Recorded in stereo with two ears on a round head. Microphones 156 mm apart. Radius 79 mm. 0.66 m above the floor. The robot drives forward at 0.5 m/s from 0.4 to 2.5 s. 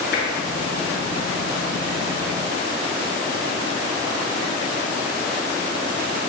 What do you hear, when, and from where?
0.1 s tapping: 65° left (ahead or behind), 5.5 m